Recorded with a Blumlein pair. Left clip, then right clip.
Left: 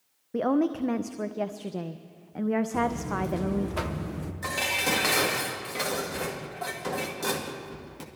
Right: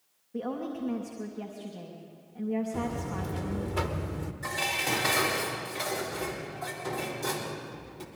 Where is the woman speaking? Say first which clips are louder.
Left 9 dB; 35° left, 0.6 m.